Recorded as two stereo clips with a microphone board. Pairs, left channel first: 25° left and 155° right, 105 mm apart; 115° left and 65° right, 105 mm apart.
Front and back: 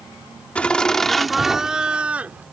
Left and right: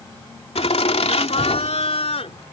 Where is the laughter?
100° left; by 2.4 s 125° left.